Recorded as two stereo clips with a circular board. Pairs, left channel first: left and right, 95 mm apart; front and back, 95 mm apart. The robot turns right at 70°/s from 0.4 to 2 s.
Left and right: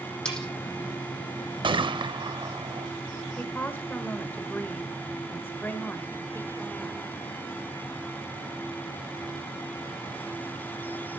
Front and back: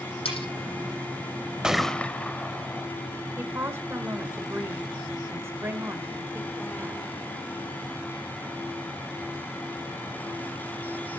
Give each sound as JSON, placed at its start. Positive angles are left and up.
{"t": 0.2, "sound": "cutlery clinking", "azimuth_deg": 10, "distance_m": 8.5}
{"t": 1.6, "sound": "a gunshot", "azimuth_deg": -100, "distance_m": 0.6}
{"t": 3.4, "sound": "a woman speaking", "azimuth_deg": 140, "distance_m": 1.2}